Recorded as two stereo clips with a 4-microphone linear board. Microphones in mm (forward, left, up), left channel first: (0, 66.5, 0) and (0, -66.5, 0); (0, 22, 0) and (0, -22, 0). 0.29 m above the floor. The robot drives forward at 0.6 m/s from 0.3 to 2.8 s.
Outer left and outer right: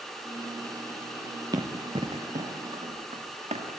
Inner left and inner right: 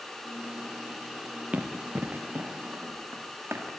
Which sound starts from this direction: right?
Running footsteps, at 1.5 s.